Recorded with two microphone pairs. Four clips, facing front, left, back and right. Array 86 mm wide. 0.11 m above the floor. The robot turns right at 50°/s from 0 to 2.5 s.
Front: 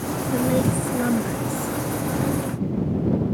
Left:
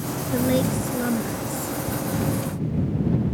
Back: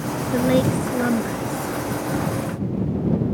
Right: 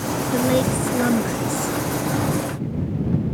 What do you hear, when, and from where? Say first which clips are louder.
0.3 s a woman speaking: right 2 dB, back 3 dB; 160° right; by 1.8 s 85° right